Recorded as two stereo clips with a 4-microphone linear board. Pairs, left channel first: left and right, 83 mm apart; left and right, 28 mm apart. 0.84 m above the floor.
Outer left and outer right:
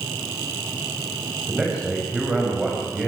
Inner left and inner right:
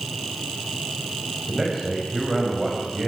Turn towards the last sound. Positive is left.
turn(degrees=-10)  # may be behind; listen again after turning